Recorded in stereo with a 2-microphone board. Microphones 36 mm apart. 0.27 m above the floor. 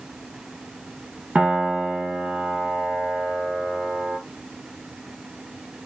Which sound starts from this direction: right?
A piano, at 1.4 s.